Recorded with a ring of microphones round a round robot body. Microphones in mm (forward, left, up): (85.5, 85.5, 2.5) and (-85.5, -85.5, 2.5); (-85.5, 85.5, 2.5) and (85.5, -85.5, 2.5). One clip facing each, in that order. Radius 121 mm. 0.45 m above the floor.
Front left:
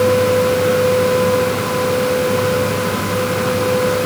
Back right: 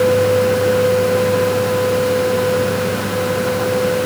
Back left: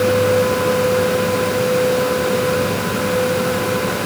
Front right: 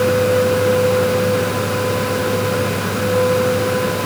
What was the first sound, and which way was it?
Only background noise.